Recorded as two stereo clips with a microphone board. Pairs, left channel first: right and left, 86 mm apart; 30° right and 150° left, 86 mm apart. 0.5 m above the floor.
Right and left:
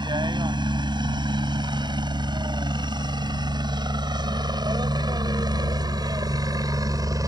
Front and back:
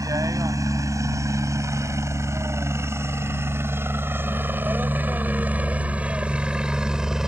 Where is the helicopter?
110° left; by 7.3 s 70° left.